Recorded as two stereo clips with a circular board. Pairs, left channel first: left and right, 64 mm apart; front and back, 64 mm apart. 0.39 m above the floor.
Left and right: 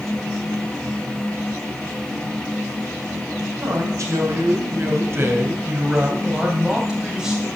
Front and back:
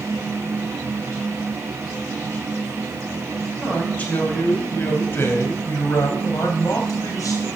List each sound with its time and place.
3.4 s a man speaking: 70° right, 3 m; by 7.5 s 5° right, 3 m